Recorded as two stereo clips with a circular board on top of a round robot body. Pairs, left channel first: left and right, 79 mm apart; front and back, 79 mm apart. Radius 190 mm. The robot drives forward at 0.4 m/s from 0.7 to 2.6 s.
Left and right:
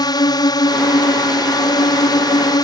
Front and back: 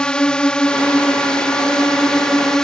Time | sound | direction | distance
0.0 | a drone | 80° left | ?